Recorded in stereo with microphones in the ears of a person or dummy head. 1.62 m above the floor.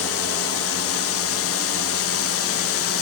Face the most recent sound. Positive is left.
turn(degrees=65)  # may be behind; listen again after turning